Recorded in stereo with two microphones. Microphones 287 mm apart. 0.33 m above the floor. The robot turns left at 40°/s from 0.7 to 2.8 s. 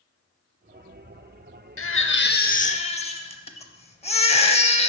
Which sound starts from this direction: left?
A baby crying, at 1.8 s.